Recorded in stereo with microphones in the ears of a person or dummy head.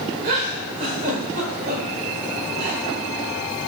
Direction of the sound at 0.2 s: 55° right (ahead or behind).